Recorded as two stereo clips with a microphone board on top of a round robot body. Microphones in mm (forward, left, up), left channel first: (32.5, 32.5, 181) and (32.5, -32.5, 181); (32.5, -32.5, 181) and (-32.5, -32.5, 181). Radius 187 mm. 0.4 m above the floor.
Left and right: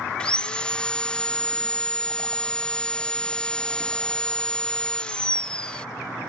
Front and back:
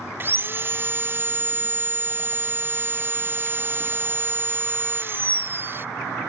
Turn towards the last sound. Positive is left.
turn(degrees=155)